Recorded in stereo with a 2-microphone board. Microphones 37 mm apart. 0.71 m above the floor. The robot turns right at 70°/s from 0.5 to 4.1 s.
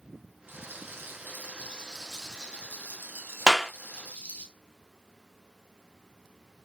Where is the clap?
15° right (ahead or behind), 0.9 m; by 3.7 s centre (ahead or behind), 0.9 m.